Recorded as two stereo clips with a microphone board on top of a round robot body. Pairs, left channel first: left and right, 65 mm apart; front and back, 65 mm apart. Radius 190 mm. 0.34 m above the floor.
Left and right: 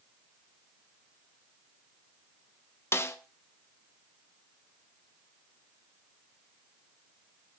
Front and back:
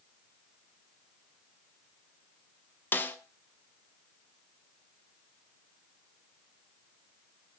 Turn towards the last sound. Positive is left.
turn(degrees=50)